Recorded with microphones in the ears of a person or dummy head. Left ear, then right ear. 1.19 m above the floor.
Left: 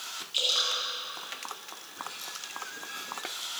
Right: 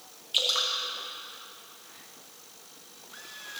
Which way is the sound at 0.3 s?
30° right (ahead or behind).